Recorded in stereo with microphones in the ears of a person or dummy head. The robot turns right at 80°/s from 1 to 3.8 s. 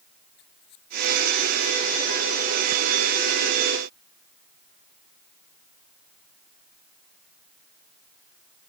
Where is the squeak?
60° left (ahead or behind); by 1.8 s 5° right (ahead or behind).